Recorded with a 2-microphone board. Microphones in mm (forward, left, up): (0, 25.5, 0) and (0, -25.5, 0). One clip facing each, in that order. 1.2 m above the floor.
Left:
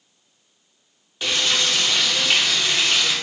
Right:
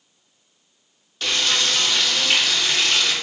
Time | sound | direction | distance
1.2 | frying | 15° left (ahead or behind) | 0.6 m